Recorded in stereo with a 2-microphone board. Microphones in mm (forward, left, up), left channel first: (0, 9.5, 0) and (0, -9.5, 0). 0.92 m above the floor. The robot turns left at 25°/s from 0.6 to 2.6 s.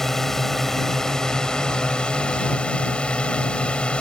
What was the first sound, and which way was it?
A drone, 160° left.